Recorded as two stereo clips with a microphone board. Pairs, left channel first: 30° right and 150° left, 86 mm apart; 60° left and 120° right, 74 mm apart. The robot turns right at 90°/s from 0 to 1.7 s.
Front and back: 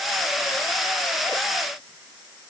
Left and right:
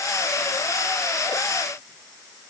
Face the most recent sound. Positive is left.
No sound to turn to.